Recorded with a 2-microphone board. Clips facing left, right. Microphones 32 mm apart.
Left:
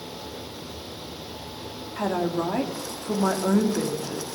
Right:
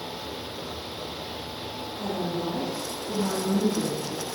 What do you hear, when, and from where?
2.0 s a woman speaking: 80° left, 2 m